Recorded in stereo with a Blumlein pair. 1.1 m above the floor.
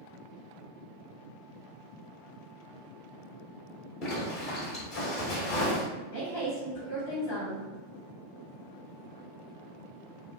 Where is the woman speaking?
45° left, 1.1 m.